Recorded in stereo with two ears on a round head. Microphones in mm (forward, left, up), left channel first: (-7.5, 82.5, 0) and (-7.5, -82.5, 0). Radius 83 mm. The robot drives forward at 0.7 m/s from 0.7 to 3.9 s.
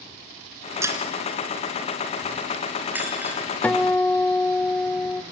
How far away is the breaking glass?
About 3 m.